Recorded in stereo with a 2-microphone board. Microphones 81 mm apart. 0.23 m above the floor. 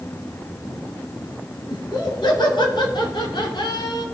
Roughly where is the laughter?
Left.